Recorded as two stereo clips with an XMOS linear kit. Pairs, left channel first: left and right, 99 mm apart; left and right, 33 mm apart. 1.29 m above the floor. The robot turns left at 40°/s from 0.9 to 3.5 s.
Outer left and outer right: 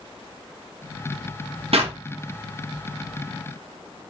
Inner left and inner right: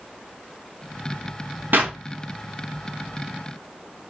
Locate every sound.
1.7 s a clap: 75° right (ahead or behind), 0.6 m; by 2.0 s 70° right (ahead or behind), 0.6 m